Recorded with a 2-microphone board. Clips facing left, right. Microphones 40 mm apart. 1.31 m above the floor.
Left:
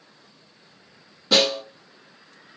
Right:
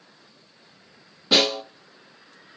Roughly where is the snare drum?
Centre.